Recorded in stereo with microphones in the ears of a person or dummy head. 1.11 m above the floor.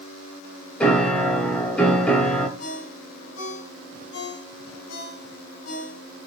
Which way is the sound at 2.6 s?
90° left.